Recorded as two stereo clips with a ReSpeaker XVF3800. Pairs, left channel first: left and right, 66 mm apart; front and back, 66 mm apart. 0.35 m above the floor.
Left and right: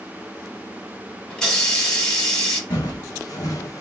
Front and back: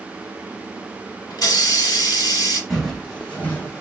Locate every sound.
1.3 s a hiss: 10° left, 1.0 m
2.7 s footsteps: 85° left, 1.2 m; by 3.8 s 50° left, 0.9 m